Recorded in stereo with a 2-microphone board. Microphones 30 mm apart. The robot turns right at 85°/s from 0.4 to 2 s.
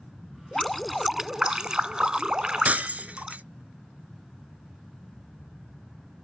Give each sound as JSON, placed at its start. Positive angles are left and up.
{"t": 0.5, "sound": "dripping", "side_deg": 15}
{"t": 2.6, "sound": "breaking glass", "side_deg": -55}